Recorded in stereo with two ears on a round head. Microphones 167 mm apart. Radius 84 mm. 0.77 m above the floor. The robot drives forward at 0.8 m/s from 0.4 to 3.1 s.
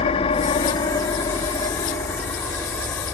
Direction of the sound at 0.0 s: 30° left (ahead or behind).